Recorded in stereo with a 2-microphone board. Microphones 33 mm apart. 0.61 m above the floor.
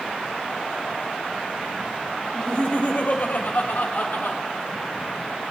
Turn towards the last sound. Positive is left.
turn(degrees=70)  # may be behind; listen again after turning